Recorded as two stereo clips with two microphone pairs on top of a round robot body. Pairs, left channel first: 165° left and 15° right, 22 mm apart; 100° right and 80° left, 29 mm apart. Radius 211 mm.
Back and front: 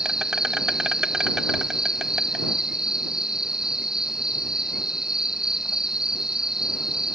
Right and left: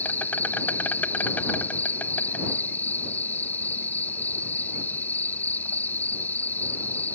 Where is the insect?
80° right.